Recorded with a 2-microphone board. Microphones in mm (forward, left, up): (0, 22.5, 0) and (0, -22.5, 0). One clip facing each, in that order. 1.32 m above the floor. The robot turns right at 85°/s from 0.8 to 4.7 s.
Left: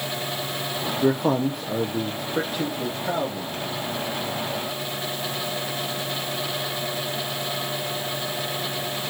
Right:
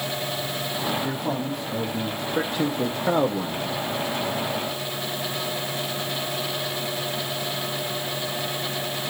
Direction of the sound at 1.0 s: 65° left.